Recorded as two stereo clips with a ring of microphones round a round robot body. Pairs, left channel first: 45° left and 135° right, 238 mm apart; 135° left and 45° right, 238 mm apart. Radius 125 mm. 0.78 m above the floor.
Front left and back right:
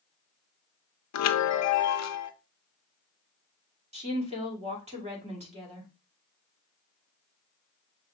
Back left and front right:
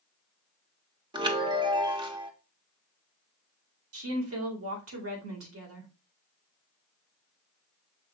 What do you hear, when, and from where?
1.1 s a chime: 25° left, 0.7 m
3.9 s a woman speaking: 70° right, 2 m